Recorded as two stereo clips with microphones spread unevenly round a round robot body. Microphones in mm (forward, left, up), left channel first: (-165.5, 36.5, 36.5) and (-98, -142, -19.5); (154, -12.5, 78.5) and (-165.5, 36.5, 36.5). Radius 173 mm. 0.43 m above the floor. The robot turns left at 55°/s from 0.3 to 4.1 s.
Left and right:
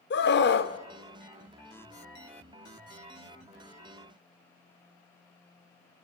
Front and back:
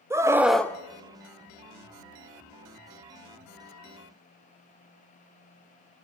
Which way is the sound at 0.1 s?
105° left.